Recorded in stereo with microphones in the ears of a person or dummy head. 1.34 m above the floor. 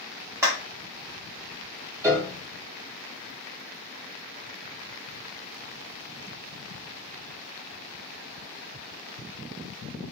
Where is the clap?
15° right (ahead or behind), 1.3 m.